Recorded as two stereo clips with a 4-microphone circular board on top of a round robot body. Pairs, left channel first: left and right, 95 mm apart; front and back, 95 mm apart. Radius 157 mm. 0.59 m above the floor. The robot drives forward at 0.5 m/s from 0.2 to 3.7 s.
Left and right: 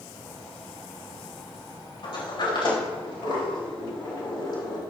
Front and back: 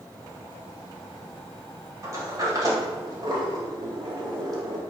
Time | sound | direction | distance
2.0 | a sliding door | 125° left | 3.5 m